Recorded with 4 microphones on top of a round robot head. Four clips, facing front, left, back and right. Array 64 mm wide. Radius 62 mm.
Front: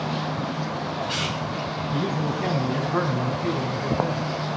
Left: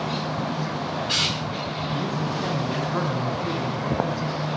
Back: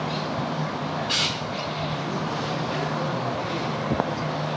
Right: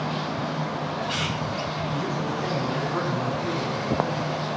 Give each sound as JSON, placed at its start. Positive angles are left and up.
{"t": 1.9, "sound": "a man speaking", "azimuth_deg": 10, "distance_m": 5.0}